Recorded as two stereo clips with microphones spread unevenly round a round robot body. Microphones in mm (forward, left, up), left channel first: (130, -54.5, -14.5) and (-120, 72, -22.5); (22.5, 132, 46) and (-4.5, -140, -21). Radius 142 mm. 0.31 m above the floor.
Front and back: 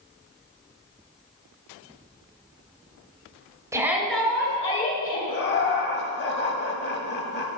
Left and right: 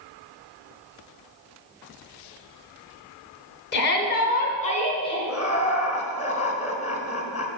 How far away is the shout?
About 1.3 m.